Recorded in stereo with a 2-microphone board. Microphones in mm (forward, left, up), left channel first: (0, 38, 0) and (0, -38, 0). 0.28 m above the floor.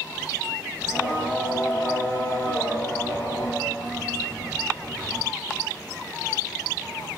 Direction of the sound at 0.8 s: 25° left (ahead or behind).